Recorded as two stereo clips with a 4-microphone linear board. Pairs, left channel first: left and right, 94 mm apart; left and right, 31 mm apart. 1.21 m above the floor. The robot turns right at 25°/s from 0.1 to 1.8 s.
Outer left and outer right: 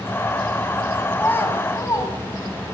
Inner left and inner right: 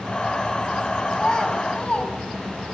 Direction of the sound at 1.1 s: 15° left (ahead or behind).